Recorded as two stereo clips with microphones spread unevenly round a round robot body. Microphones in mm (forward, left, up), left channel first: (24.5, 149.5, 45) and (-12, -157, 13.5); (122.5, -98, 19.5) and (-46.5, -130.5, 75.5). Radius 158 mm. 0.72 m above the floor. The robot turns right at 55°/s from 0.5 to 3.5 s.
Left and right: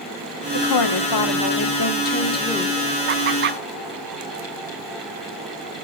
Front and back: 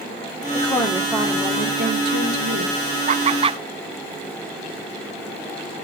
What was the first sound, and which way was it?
A woman speaking, 60° left.